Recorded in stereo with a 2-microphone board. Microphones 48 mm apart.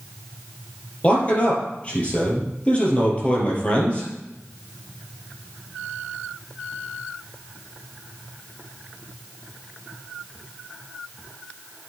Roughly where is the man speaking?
Left.